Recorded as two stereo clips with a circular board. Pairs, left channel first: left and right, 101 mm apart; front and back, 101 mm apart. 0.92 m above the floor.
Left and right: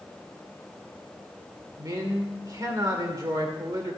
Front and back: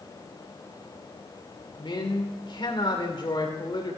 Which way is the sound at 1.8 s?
35° right.